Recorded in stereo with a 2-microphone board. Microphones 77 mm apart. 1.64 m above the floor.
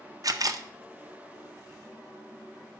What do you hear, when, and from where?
0.2 s a camera shutter: 50° right (ahead or behind), 0.7 m